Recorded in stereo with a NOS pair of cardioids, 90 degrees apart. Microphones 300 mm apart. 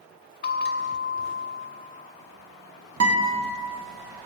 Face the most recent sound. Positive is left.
turn(degrees=-50)